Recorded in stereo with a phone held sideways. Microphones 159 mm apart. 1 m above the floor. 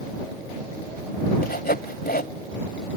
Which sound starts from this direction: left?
Sawing, at 1.4 s.